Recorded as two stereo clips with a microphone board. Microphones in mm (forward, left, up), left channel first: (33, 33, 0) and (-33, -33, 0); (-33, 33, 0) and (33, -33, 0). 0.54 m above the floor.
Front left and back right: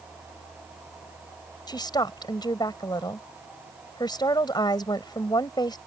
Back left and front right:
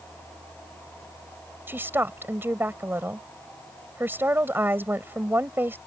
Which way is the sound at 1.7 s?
20° left.